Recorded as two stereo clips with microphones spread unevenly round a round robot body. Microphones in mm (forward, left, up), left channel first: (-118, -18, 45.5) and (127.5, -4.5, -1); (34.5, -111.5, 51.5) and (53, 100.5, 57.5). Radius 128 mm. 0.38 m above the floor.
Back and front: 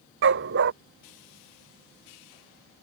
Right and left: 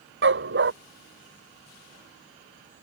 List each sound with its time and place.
0.2 s a dog barking: 50° left